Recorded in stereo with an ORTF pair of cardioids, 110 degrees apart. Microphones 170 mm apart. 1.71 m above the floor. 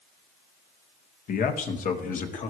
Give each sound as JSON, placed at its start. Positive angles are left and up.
{"t": 1.3, "sound": "a man speaking", "azimuth_deg": 55, "distance_m": 1.7}